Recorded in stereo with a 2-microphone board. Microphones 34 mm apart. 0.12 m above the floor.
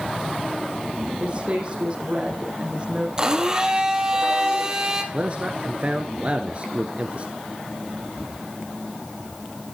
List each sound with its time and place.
1.2 s a woman speaking: 30° right (ahead or behind), 6 m
3.2 s a blender: 20° right (ahead or behind), 2 m
5.1 s a man speaking: 35° right (ahead or behind), 1.7 m